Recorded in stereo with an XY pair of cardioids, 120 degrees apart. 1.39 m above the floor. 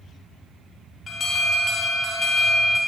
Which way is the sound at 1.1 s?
30° left.